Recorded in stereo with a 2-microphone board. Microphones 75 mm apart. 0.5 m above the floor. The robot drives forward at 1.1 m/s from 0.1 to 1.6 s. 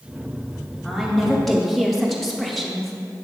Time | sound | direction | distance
0.8 | a woman speaking | centre (ahead or behind) | 1.0 m